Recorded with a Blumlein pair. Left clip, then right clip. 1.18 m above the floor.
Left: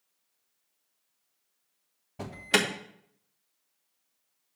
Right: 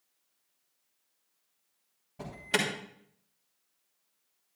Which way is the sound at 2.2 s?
20° left.